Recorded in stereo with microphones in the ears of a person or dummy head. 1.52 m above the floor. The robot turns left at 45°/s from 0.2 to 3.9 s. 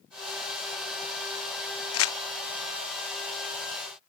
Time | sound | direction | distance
1.9 | crumpling | 75° left (ahead or behind) | 1.1 m